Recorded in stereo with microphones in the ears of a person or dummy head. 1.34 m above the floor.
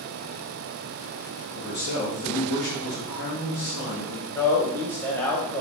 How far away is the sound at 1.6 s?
About 1.3 m.